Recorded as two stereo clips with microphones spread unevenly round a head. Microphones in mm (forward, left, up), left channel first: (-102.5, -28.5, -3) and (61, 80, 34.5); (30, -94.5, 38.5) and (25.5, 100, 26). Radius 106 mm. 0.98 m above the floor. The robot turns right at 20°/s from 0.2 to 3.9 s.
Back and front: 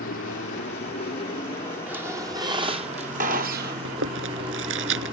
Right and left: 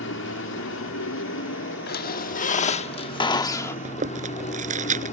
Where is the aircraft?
110° right; by 5.1 s 35° right.